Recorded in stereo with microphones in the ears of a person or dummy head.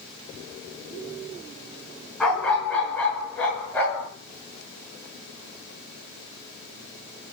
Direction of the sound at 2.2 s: 5° left (ahead or behind).